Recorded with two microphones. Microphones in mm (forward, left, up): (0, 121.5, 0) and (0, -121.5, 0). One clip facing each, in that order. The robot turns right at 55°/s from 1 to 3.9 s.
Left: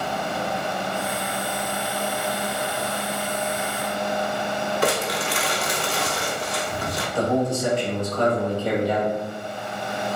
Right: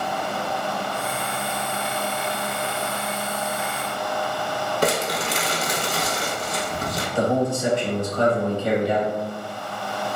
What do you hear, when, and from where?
4.8 s crumpling: 45° right (ahead or behind), 0.5 m
7.2 s a man speaking: 20° right (ahead or behind), 1.1 m